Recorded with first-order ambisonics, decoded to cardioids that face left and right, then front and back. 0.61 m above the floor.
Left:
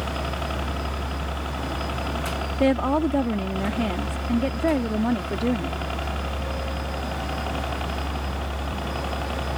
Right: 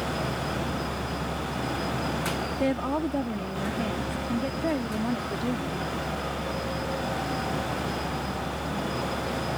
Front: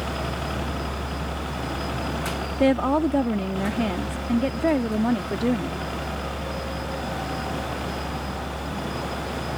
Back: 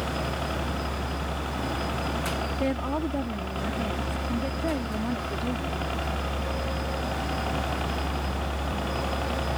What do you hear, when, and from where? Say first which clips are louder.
0.0 s a helicopter: left 1 dB, front 1 dB; 85° left; by 9.6 s 120° left
2.6 s a woman speaking: left 8 dB, front 11 dB; 35° left